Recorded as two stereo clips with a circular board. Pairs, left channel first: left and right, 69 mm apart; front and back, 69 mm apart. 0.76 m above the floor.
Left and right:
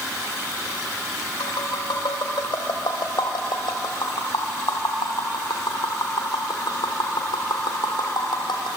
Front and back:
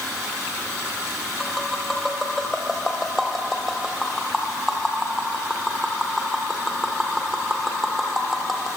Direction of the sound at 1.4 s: 95° left.